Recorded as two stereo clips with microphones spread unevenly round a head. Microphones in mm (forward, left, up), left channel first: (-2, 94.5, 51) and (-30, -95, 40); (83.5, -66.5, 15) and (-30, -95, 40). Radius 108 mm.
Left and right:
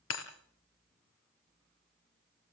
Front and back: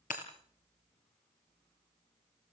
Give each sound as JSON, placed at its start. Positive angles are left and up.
{"t": 0.1, "sound": "breaking glass", "azimuth_deg": 60, "distance_m": 3.5}